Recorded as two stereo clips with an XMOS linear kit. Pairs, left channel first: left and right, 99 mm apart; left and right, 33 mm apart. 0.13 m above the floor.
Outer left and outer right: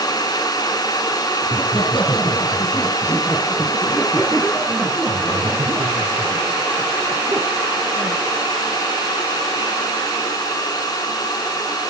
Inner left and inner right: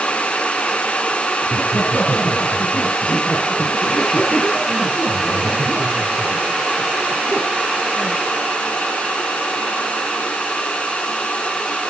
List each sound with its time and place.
1.4 s laughter: 55° left (ahead or behind), 3.5 m; by 8.2 s 35° right (ahead or behind), 6.5 m